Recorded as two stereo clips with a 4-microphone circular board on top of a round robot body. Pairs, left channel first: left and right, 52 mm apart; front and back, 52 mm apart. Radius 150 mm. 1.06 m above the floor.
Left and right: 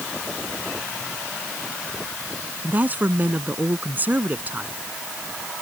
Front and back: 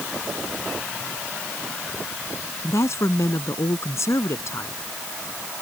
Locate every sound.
2.6 s a woman speaking: 30° right